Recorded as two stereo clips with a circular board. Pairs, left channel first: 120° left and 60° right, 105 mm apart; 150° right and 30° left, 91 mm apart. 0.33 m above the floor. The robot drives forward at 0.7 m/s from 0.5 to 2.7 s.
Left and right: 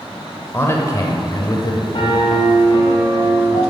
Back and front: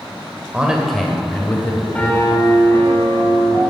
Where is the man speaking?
90° left, 0.9 m; by 1.8 s 155° left, 1.3 m.